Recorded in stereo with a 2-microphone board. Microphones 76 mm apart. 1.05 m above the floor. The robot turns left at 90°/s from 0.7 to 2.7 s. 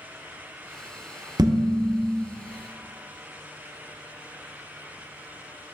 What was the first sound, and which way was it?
Dishes clattering, 95° right.